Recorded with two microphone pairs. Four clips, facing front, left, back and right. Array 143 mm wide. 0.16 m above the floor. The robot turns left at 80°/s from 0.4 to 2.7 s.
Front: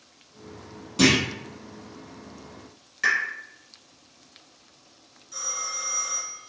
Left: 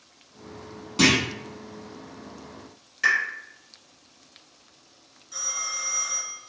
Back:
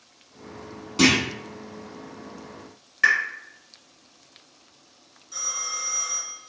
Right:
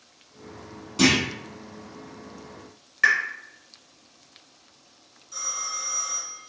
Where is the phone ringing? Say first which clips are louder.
Right 1 dB, even; 125° left, 1.2 m.